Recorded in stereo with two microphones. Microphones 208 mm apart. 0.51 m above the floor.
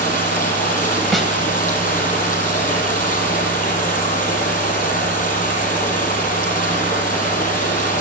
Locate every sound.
0.0 s running water: 40° left (ahead or behind), 6.5 m
1.1 s a snare drum: centre (ahead or behind), 1.8 m